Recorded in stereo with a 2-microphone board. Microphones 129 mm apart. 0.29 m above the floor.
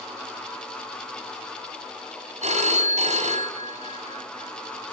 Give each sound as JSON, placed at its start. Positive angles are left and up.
{"t": 2.4, "sound": "a phone ringing", "side_deg": -60, "distance_m": 1.4}